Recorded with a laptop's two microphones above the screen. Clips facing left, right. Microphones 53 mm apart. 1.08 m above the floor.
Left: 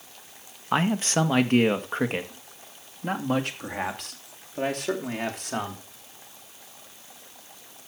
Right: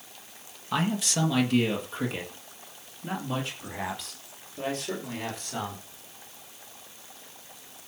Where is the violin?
No violin in this recording.